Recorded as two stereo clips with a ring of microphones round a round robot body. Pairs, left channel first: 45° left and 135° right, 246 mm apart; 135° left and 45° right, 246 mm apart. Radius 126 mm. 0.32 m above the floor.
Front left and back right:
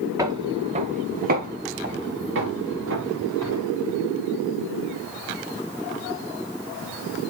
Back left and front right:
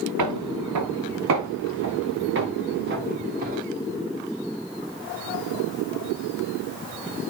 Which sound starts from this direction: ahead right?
Footsteps, at 0.2 s.